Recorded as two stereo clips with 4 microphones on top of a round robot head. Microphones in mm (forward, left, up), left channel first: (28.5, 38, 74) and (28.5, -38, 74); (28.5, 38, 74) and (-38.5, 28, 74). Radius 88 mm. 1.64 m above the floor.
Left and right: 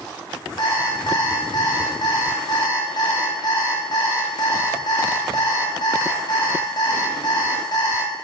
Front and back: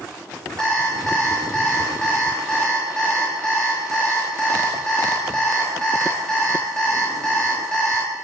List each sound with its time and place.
0.6 s an alarm clock: 85° left, 1.2 m